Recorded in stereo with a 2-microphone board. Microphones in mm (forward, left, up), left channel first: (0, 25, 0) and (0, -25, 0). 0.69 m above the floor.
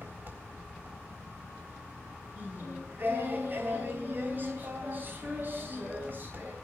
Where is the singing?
45° right (ahead or behind), 4.5 m.